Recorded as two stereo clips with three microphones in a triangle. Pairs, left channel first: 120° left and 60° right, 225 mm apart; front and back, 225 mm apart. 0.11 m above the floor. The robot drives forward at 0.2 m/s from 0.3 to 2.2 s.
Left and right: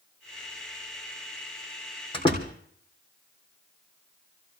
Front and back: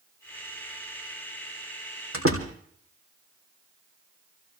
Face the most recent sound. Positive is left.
turn(degrees=-175)